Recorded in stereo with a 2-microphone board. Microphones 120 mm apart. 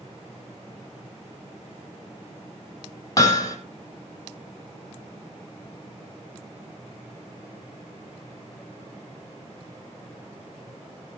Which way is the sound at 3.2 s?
30° left (ahead or behind).